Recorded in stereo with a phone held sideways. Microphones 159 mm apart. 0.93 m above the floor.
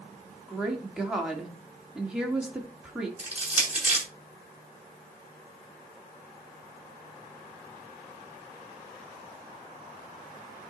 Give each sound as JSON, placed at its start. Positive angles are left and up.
{"t": 0.5, "sound": "a woman speaking", "side_deg": -5, "distance_m": 2.5}
{"t": 3.2, "sound": "crushing", "side_deg": -10, "distance_m": 7.0}